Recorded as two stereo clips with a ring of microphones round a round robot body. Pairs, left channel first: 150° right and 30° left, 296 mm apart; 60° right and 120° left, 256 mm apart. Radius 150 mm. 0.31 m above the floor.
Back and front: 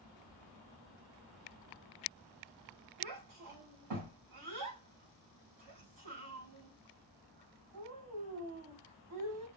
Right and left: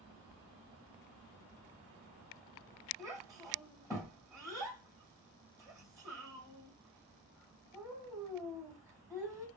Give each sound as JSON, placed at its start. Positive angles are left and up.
{"t": 3.0, "sound": "a child speaking", "azimuth_deg": 30, "distance_m": 1.9}